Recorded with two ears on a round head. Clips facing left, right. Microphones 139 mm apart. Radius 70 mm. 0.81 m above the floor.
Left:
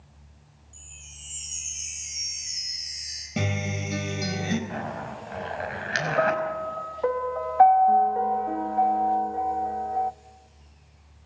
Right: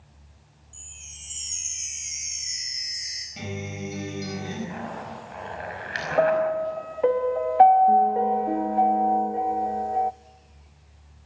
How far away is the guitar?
About 4 m.